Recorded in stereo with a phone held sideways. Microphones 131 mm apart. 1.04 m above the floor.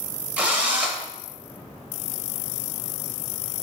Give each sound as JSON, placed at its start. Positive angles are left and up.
{"t": 0.4, "sound": "a drill", "side_deg": -10, "distance_m": 0.7}